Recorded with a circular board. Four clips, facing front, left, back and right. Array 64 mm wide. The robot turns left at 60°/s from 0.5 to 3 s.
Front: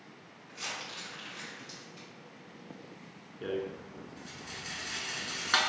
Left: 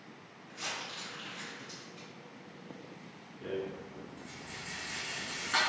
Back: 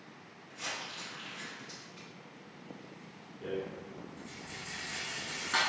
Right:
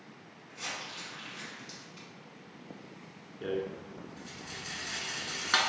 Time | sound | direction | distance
0.5 | crumpling | 5° left | 1.8 m
3.4 | a rattle | 45° right | 0.5 m